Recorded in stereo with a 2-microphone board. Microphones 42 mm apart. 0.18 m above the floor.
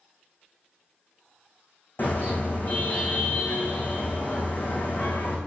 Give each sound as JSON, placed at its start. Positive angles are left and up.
{"t": 2.0, "sound": "a car horn", "side_deg": 50, "distance_m": 5.0}